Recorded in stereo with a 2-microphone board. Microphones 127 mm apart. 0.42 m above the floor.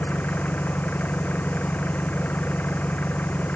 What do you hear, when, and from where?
0.0 s an engine running: 15° left (ahead or behind)